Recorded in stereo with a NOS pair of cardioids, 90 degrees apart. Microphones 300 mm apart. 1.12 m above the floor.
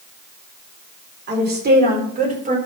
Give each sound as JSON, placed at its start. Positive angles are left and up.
{"t": 1.3, "sound": "a woman speaking", "azimuth_deg": -35, "distance_m": 4.0}